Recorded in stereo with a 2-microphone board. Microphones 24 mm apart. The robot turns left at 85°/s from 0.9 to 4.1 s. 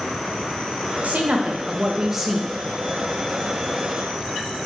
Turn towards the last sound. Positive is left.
turn(degrees=30)